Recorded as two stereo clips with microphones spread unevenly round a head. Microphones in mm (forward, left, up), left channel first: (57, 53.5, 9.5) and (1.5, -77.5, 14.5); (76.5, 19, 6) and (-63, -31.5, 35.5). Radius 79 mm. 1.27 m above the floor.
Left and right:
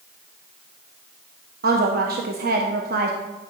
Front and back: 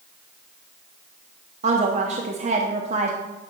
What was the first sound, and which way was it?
A woman speaking, 115° right.